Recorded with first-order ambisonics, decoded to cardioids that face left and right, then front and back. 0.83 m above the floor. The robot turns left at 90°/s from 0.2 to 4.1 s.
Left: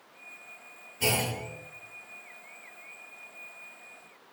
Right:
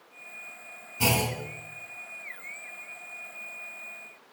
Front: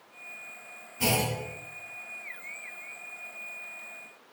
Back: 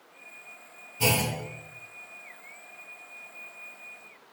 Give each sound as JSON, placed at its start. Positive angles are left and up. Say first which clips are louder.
{"t": 1.0, "sound": "a clunk", "louder": "right 2 dB, back 2 dB", "azimuth_deg": -100, "distance_m": 2.5}